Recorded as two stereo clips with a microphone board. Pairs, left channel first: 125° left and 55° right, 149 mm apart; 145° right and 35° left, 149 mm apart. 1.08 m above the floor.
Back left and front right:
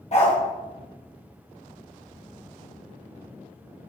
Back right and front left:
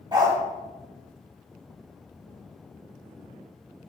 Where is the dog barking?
90° left, 1.3 m.